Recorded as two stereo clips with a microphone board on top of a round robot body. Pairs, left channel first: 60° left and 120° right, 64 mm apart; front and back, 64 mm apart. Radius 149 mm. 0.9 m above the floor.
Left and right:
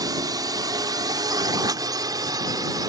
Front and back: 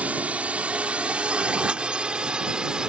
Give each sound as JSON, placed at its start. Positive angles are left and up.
{"t": 0.0, "sound": "a drone", "azimuth_deg": -115}